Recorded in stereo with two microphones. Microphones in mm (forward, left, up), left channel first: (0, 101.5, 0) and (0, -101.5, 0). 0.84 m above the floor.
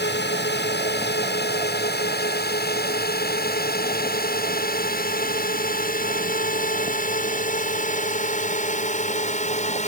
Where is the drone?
60° left (ahead or behind); by 9.9 s 35° left (ahead or behind).